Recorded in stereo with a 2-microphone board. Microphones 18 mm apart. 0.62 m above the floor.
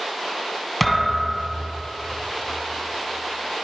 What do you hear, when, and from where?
0.8 s a thud: centre (ahead or behind), 2.5 m